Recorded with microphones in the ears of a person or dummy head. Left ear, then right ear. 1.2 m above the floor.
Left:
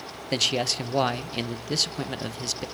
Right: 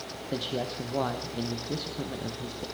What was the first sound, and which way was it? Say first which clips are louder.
A man speaking: left 9 dB; 70° left (ahead or behind).